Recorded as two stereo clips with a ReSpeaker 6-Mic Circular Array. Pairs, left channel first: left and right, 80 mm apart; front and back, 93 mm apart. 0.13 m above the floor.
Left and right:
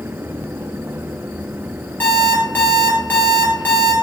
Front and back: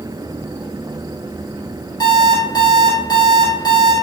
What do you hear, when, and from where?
2.0 s an alarm clock: 30° left, 1.6 m